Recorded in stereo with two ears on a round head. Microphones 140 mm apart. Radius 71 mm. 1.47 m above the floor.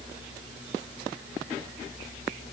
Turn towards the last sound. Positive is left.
No sound to turn to.